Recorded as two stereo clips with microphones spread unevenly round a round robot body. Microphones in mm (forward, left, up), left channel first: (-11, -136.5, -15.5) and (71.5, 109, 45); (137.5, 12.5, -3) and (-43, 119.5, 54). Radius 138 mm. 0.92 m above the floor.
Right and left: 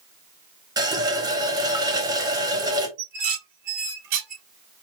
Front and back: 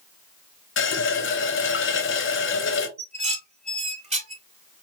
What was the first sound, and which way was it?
A running tap, 5° right.